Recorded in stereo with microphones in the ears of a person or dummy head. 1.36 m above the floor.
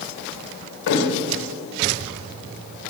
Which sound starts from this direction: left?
A thud, at 0.9 s.